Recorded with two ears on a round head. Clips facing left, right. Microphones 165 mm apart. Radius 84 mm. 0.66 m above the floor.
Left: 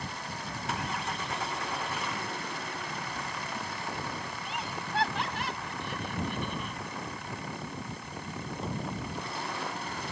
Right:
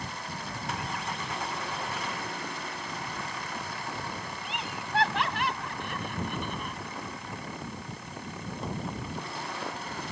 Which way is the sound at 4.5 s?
65° right (ahead or behind).